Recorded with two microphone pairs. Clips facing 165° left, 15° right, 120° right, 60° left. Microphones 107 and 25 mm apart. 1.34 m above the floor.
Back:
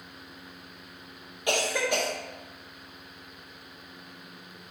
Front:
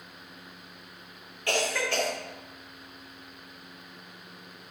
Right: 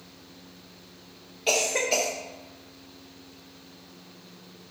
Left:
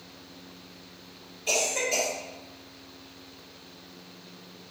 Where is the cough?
120° right, 0.5 m.